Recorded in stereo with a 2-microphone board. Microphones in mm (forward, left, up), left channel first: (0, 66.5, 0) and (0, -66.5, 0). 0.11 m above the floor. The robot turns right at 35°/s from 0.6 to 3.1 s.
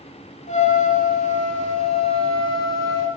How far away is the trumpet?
About 1.1 m.